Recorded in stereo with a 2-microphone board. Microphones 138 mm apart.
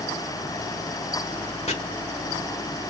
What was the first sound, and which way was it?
Chopping, 50° left (ahead or behind).